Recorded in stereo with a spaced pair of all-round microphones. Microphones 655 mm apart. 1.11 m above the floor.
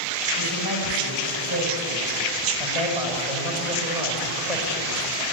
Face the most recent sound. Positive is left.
turn(degrees=75)  # may be behind; listen again after turning